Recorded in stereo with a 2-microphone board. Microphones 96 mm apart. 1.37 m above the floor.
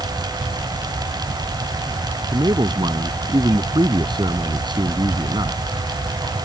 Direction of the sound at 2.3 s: 50° right (ahead or behind).